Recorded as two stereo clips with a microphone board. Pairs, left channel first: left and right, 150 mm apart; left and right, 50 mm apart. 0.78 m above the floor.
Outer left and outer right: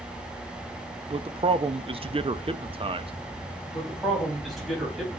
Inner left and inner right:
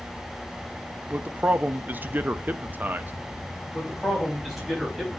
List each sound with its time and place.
1.1 s a man speaking: 40° right (ahead or behind), 0.5 m
3.7 s a man speaking: centre (ahead or behind), 4.5 m